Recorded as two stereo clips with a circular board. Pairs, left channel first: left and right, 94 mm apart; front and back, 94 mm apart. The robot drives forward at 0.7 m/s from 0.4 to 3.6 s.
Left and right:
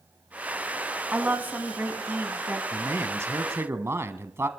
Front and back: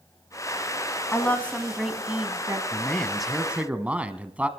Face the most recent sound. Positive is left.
turn(degrees=-120)